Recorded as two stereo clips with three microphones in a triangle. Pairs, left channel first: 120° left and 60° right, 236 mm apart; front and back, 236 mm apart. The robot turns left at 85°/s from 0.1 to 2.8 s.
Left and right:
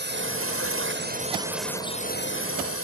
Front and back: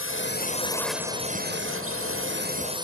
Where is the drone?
20° right; by 2.9 s 110° left.